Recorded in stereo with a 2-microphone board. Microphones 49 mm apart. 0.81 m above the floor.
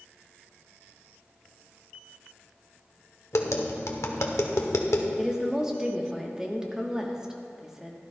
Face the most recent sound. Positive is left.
turn(degrees=-15)  # may be behind; listen again after turning